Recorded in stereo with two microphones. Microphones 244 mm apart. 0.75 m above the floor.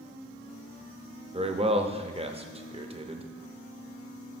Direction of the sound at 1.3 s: 25° right (ahead or behind).